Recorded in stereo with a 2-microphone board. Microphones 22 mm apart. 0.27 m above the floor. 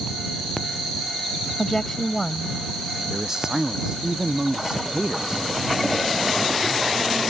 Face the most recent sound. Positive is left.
turn(degrees=-30)  # may be behind; listen again after turning